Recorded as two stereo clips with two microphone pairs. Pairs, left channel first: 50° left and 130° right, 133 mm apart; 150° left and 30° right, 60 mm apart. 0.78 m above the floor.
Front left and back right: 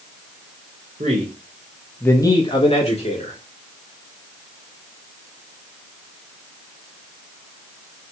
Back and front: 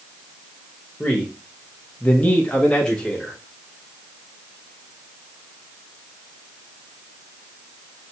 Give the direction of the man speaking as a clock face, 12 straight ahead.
5 o'clock.